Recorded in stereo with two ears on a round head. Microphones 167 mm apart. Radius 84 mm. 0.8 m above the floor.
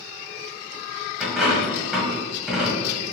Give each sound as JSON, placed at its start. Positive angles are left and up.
{"t": 1.2, "sound": "a dropped coin", "side_deg": -5, "distance_m": 0.9}